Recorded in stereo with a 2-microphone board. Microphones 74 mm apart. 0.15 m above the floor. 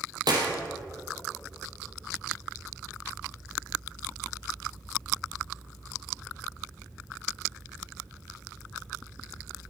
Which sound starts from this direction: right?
A clap, at 0.3 s.